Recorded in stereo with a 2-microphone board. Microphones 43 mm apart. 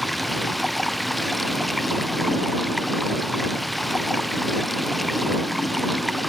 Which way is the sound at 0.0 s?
Centre (ahead or behind).